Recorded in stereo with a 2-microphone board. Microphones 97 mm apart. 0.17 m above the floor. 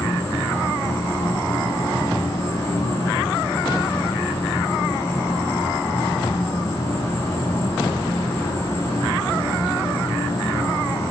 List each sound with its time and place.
0.0 s an insect: 25° left (ahead or behind), 3 m